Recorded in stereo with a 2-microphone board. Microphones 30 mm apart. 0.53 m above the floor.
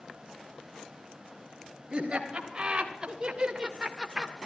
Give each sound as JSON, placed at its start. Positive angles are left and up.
{"t": 1.9, "sound": "laughter", "side_deg": -40, "distance_m": 3.0}